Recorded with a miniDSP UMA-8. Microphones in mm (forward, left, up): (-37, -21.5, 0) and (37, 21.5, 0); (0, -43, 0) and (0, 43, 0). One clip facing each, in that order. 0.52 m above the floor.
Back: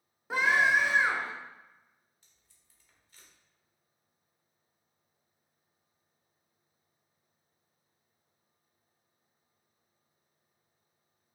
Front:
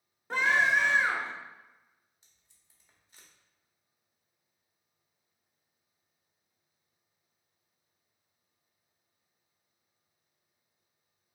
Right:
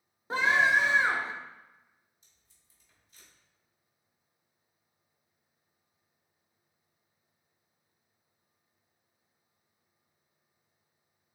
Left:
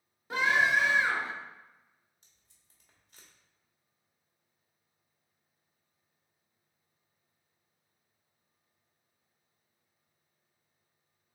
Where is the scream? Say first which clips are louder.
Back 1 dB, right 2 dB; 75° right, 0.7 m.